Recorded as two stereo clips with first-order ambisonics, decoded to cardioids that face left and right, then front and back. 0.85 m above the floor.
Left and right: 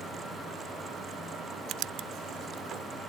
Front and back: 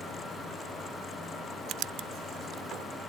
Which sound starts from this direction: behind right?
Writing, at 1.7 s.